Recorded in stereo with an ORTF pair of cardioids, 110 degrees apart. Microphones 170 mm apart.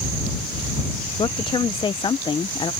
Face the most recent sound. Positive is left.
turn(degrees=30)